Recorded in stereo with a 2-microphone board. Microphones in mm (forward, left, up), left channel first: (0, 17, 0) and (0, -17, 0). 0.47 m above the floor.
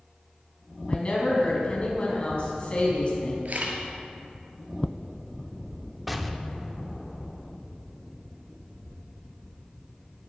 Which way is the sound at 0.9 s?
35° left (ahead or behind).